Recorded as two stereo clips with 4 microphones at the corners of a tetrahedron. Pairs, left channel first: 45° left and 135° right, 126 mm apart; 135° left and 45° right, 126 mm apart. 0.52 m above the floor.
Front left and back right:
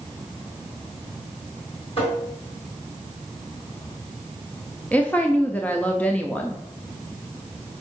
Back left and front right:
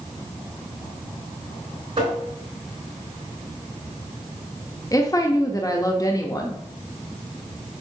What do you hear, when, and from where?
2.0 s tapping: straight ahead, 3.5 m
4.9 s a woman speaking: 115° left, 0.7 m